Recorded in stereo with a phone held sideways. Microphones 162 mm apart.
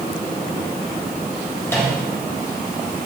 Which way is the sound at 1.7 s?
15° left (ahead or behind).